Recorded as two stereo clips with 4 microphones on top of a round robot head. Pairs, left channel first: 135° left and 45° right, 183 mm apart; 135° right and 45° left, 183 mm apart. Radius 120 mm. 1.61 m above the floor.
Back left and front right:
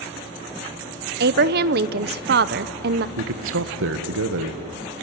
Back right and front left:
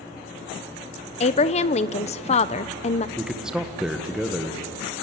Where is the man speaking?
45° right, 1.6 m.